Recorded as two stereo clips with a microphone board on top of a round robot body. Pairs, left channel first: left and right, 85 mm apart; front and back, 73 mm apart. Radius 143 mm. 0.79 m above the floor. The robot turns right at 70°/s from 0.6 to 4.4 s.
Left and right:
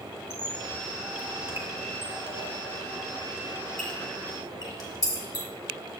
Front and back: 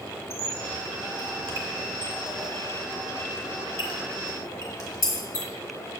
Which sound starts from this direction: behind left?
A squeak, at 0.3 s.